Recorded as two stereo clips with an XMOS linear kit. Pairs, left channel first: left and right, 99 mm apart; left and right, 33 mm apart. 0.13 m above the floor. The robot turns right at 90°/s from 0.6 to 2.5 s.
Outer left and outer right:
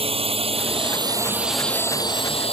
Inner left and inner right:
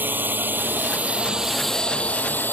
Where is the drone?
65° right (ahead or behind); by 2.5 s 70° left (ahead or behind).